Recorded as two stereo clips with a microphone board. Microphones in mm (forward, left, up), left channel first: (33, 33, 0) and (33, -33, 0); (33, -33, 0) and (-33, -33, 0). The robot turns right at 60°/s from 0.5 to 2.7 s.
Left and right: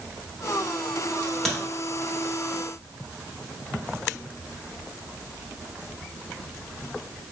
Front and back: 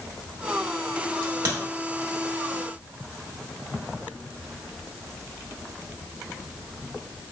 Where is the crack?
160° left, 1.2 m; by 1.6 s straight behind, 1.2 m.